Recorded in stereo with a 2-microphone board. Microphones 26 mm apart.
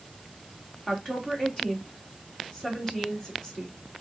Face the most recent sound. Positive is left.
turn(degrees=20)  # may be behind; listen again after turning